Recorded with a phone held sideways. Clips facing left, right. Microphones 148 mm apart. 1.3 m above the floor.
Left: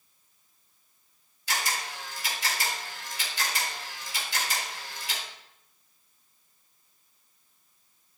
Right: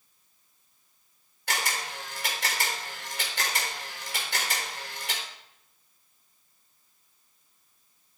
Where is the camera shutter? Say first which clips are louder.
Even; 75° right (ahead or behind), 3.5 m.